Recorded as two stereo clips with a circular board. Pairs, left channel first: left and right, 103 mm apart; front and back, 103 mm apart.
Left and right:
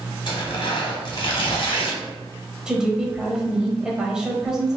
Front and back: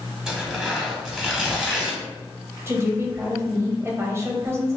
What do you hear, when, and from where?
0.3 s tearing paper: 100° left, 1.2 m
2.7 s a woman speaking: 165° right, 0.9 m